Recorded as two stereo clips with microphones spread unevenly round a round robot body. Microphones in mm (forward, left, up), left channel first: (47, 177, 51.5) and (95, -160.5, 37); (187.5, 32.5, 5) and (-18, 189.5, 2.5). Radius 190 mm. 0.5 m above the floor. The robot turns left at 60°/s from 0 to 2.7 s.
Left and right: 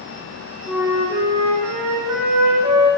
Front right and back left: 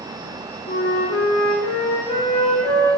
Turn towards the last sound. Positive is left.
turn(degrees=-115)